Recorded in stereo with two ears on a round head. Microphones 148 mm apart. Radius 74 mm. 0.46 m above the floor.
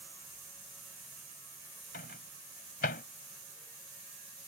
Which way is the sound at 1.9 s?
60° left (ahead or behind).